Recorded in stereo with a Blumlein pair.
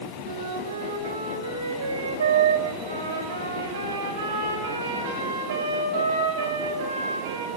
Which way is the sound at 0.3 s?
70° right.